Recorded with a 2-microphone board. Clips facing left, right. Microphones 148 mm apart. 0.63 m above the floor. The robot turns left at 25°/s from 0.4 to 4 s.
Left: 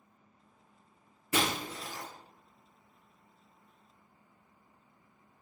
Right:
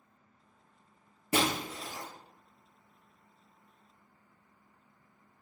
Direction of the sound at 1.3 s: 35° right (ahead or behind).